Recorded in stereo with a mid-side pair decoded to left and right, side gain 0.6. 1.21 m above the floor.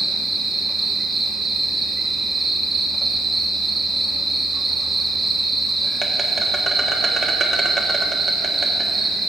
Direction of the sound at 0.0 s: 20° right.